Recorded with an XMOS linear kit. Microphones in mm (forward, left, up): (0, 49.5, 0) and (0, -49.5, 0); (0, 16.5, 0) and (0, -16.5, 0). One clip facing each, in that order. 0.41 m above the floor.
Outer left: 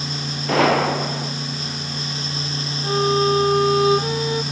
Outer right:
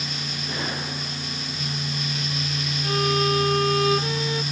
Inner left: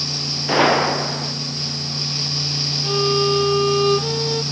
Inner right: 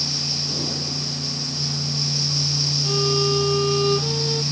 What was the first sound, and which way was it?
A gunshot, 85° left.